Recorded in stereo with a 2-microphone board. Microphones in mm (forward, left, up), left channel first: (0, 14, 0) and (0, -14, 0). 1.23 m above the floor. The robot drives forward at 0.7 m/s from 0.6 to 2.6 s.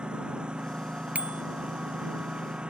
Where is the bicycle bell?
65° right (ahead or behind).